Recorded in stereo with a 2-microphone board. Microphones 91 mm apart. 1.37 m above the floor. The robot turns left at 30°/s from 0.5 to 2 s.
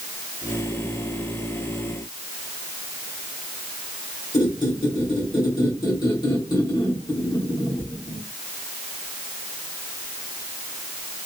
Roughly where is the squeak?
Left.